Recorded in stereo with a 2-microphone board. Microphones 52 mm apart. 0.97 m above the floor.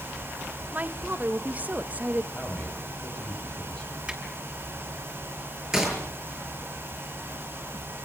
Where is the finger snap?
15° right (ahead or behind), 7.5 m.